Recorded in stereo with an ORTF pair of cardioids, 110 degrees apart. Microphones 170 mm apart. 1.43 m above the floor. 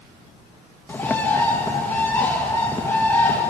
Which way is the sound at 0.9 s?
10° left.